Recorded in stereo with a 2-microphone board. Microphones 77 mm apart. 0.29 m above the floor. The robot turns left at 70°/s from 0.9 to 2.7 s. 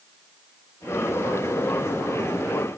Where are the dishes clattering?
I don't hear dishes clattering.